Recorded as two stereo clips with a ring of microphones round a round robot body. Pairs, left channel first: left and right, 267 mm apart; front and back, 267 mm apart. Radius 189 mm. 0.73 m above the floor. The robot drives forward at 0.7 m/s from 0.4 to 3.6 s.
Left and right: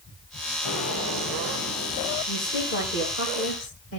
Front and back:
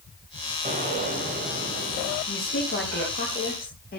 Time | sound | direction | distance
0.7 | an explosion | 120° left | 4 m
2.3 | a woman speaking | 45° left | 4.5 m